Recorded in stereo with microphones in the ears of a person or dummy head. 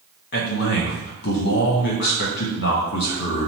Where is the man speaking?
55° left (ahead or behind), 1.5 m.